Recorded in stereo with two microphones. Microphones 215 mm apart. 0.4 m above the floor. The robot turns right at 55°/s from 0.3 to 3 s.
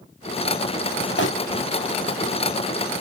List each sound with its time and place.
1.2 s crumpling: 55° left (ahead or behind), 0.9 m; by 1.3 s 60° left (ahead or behind), 0.9 m